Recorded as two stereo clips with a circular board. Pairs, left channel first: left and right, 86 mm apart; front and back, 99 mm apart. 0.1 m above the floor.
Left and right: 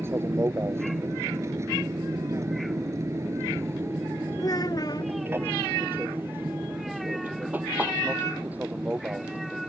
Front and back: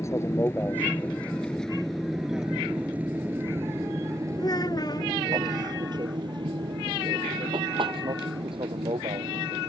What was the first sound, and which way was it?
An aircraft, 45° right.